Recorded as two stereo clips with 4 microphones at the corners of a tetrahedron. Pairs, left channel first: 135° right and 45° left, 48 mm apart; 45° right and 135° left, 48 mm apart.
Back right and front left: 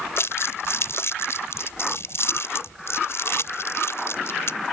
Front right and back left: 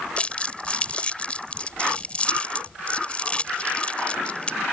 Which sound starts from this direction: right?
Crumpling, at 0.2 s.